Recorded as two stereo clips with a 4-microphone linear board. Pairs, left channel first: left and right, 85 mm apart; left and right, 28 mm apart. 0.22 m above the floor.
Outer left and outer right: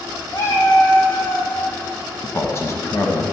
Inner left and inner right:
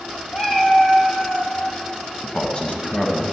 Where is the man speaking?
35° left (ahead or behind), 1.1 m.